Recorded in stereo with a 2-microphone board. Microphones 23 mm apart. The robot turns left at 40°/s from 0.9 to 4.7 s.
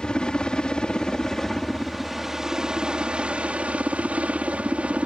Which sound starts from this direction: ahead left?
A helicopter, at 0.0 s.